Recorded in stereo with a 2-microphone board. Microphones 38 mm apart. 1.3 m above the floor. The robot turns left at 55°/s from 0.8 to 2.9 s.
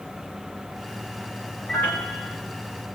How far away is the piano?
About 4 m.